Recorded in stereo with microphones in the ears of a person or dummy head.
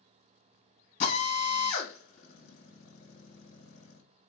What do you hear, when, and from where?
1.0 s a drill: 50° left (ahead or behind), 1.2 m